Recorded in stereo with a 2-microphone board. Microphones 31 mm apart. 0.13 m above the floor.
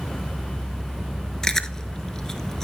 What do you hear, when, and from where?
1.4 s chewing: 15° left (ahead or behind), 1.1 m